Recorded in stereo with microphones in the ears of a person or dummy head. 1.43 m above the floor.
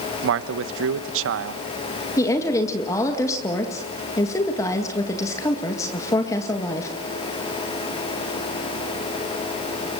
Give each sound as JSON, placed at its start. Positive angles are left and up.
{"t": 0.2, "sound": "a man speaking", "side_deg": -75, "distance_m": 1.1}
{"t": 2.2, "sound": "a woman speaking", "side_deg": 20, "distance_m": 2.0}